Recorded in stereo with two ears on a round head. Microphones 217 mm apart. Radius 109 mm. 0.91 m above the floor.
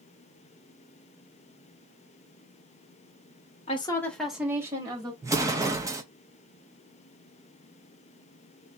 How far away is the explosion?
About 0.7 m.